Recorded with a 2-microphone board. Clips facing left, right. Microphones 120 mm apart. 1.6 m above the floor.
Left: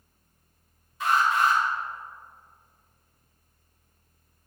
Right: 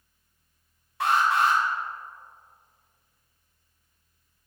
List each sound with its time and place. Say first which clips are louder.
1.0 s an alarm: right 1 dB; 70° right (ahead or behind), 2.5 m